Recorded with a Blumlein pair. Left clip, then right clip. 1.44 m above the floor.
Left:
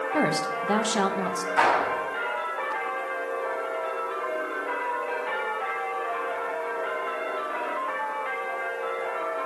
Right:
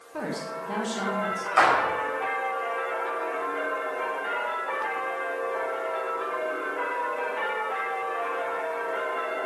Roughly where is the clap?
Ahead right.